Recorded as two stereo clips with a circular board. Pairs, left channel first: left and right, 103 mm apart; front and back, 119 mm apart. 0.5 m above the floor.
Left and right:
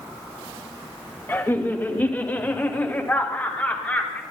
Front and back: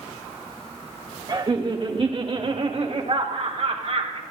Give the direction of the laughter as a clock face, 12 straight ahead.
7 o'clock.